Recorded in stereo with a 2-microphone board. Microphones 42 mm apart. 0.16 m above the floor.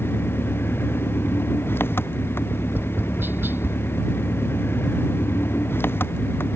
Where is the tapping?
65° right (ahead or behind).